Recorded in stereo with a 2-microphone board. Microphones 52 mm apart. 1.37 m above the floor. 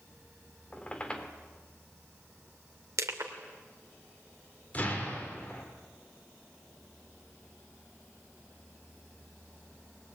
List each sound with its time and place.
0.7 s a squeak: 20° left (ahead or behind), 2.5 m
3.0 s crushing: 70° right (ahead or behind), 2.5 m
4.7 s an explosion: 30° left (ahead or behind), 5 m